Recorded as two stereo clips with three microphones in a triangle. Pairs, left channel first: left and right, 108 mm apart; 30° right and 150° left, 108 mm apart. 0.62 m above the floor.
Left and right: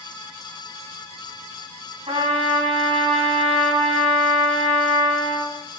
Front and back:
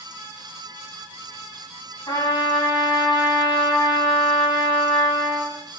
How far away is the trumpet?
About 6 m.